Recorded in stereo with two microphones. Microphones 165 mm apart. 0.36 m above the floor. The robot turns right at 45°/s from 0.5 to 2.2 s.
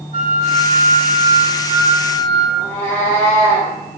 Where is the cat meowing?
15° left (ahead or behind), 3.5 m.